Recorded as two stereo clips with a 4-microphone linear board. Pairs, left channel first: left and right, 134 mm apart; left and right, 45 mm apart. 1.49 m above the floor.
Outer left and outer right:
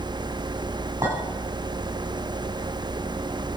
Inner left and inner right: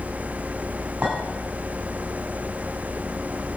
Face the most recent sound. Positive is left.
turn(degrees=-25)  # may be behind; listen again after turning